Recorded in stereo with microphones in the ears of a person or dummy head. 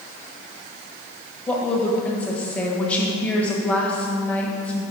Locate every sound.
1.5 s a woman speaking: 10° left (ahead or behind), 1.1 m